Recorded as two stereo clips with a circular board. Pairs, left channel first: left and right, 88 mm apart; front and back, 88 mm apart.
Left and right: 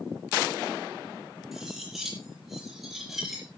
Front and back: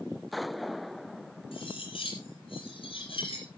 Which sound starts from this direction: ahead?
Cutlery clinking, at 1.5 s.